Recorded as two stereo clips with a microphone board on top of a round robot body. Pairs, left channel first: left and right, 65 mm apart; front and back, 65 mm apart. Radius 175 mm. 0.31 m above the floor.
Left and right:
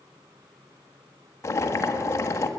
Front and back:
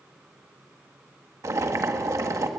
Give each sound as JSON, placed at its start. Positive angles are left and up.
{"t": 1.4, "sound": "boiling", "azimuth_deg": 140, "distance_m": 1.4}